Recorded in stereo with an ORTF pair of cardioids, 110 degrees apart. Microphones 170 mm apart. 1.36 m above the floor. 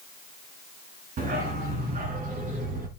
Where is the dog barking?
60° right, 5 m; by 2.9 s 55° right, 6 m.